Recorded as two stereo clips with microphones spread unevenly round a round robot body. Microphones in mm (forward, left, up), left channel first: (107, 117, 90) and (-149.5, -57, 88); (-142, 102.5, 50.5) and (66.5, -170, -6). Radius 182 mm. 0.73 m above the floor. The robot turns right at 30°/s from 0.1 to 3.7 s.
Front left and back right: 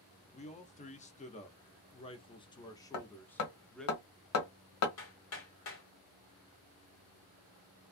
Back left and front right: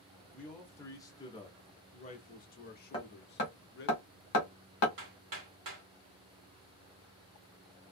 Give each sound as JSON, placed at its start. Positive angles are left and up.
{"t": 0.3, "sound": "a man speaking", "azimuth_deg": 20, "distance_m": 0.7}
{"t": 2.9, "sound": "hammering", "azimuth_deg": 50, "distance_m": 0.9}
{"t": 5.0, "sound": "hammering", "azimuth_deg": -15, "distance_m": 1.6}